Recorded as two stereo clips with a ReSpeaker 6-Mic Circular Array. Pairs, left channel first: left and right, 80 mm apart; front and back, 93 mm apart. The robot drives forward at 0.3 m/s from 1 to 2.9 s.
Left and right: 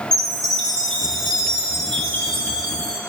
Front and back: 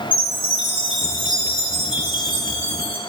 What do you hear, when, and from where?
0.1 s a chime: 10° left, 3.5 m; by 3.0 s 15° left, 3 m